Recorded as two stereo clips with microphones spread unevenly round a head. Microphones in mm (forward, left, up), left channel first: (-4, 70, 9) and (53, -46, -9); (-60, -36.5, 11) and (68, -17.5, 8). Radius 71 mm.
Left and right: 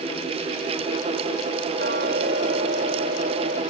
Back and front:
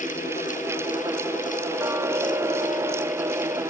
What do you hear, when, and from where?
1.8 s ticking: 60° right